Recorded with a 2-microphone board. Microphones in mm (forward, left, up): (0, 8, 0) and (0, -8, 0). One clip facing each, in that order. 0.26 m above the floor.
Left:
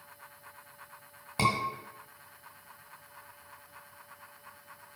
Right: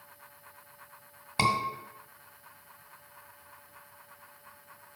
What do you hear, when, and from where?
1.4 s a scream: 20° right (ahead or behind), 1.6 m